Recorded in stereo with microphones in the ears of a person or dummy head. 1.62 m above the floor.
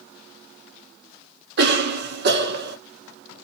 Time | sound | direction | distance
1.6 | a cough | 55° right (ahead or behind) | 0.9 m